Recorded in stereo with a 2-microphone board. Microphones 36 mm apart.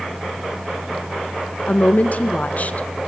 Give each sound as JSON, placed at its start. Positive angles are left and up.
{"t": 1.7, "sound": "a woman speaking", "side_deg": 40, "distance_m": 1.6}